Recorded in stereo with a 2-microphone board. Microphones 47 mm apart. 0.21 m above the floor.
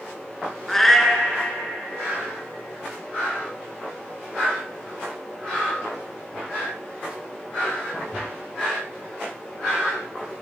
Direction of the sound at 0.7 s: 5° left (ahead or behind).